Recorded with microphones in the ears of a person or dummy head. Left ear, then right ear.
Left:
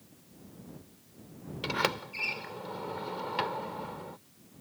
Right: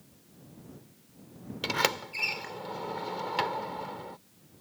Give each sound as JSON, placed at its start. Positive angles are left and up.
{"t": 1.6, "sound": "a sliding door", "side_deg": -20}